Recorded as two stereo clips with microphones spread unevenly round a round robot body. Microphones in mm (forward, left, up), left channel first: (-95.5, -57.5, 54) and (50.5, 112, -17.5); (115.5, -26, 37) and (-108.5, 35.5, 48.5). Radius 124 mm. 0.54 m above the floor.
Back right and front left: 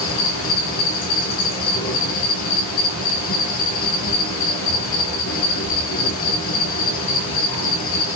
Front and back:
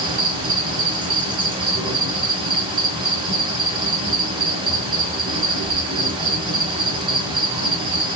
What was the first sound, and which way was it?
An insect, 125° right.